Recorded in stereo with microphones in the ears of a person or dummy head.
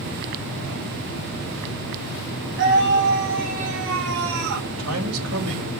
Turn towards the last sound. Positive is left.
turn(degrees=-85)